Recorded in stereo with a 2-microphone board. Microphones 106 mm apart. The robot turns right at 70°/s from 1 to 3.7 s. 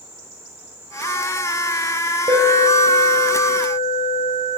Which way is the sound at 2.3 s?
70° right.